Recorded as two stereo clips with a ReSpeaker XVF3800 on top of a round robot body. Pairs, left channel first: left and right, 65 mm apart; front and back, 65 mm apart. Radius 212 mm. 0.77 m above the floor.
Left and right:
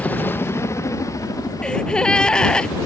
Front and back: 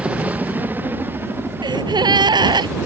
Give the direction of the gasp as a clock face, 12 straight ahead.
6 o'clock.